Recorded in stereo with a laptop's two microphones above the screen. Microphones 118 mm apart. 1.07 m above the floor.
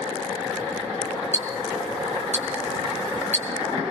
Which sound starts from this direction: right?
Ticking, at 1.3 s.